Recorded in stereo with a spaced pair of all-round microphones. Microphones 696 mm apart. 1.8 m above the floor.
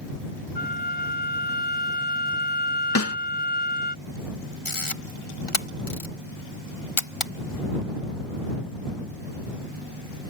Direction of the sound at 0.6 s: 80° left.